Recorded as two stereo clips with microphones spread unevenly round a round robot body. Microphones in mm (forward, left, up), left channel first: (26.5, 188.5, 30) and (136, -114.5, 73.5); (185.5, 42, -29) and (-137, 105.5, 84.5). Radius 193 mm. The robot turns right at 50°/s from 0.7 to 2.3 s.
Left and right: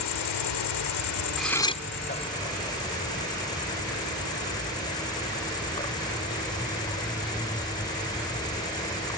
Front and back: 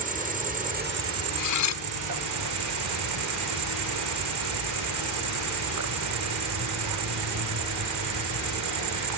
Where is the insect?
115° left; by 9.2 s 165° right.